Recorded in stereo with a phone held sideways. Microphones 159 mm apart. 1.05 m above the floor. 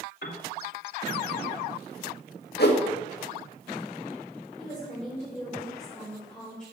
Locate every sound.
0.2 s a piano: 85° left, 2 m
2.6 s a whoosh: 75° left (ahead or behind), 1.8 m
4.6 s a woman speaking: 5° left (ahead or behind), 4 m